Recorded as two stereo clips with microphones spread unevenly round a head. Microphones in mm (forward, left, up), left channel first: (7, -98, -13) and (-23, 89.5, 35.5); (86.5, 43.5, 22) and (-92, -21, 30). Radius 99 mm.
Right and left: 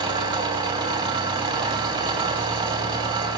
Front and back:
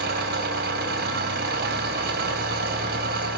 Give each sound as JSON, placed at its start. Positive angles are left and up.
{"t": 0.0, "sound": "an engine running", "azimuth_deg": 165, "distance_m": 3.5}